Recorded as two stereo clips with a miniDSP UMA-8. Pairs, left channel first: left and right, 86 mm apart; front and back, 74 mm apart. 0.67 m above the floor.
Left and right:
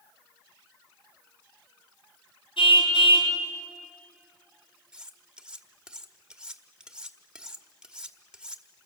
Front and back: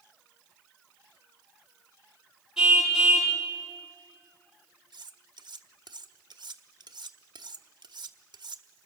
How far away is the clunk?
I don't hear a clunk.